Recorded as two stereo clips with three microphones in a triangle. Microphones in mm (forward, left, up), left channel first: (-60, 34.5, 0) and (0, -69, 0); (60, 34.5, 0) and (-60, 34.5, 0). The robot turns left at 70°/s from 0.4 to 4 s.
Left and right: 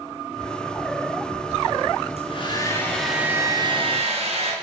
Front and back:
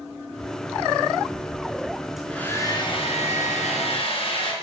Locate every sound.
2.2 s a hair dryer: 95° left, 3.5 m; by 4.5 s 35° right, 3.5 m